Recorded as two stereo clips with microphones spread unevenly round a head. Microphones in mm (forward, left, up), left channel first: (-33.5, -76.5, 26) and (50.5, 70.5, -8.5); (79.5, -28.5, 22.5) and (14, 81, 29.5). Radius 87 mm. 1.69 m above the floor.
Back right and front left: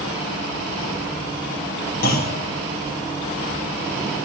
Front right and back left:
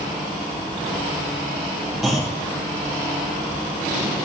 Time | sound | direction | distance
2.0 | a clunk | 150° right | 0.9 m